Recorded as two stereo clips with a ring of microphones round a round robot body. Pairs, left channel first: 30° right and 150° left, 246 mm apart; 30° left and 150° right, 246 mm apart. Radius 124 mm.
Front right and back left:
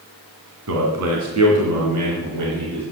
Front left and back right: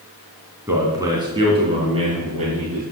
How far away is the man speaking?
About 2.5 m.